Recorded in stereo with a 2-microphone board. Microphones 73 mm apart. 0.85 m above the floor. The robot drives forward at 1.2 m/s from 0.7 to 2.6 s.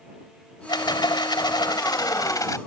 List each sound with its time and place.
0.7 s a rattle: 80° left; by 2.6 s 50° left (ahead or behind)